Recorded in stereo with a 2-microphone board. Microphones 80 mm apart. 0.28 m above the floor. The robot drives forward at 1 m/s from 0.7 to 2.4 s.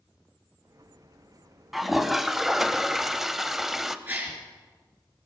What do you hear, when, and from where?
1.7 s a toilet flushing: centre (ahead or behind), 1.3 m; by 4.0 s 5° right (ahead or behind), 0.7 m
4.1 s a gasp: 20° right (ahead or behind), 4 m